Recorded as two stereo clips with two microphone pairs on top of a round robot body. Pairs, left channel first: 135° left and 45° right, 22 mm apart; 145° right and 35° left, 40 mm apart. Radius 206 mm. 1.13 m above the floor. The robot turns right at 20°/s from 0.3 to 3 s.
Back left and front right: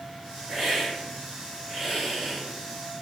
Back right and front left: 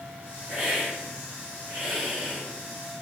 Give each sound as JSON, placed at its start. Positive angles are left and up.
{"t": 0.5, "sound": "a hiss", "azimuth_deg": -5, "distance_m": 1.8}